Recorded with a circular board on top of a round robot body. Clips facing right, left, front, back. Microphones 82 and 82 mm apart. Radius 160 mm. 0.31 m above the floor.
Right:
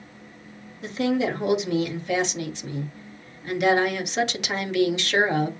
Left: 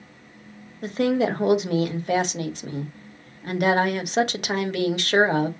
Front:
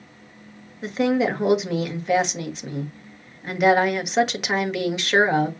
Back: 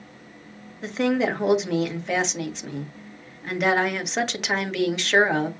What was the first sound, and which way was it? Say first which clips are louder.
A woman speaking: left 2 dB, front 2 dB; 85° left.